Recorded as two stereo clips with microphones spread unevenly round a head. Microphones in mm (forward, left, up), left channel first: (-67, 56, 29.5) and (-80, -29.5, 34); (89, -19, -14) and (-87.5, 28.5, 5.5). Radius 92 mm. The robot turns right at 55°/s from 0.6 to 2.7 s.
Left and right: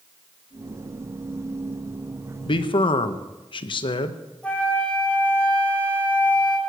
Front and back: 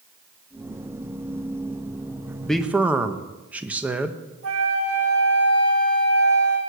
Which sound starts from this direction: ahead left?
A man speaking, at 2.5 s.